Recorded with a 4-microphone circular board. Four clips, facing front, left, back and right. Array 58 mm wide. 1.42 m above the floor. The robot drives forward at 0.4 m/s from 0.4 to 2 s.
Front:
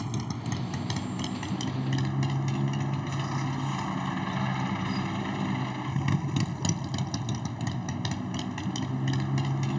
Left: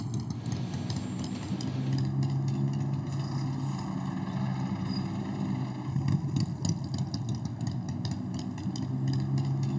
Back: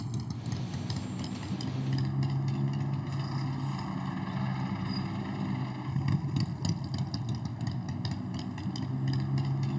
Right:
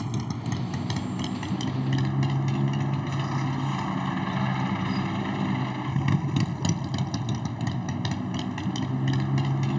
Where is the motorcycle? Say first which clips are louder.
Right 5 dB, front 5 dB; 55° right; by 9.8 s 60° right.